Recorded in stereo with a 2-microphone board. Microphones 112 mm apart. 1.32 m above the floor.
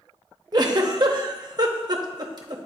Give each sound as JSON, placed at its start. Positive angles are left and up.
{"t": 0.5, "sound": "a giggle", "side_deg": -40, "distance_m": 0.7}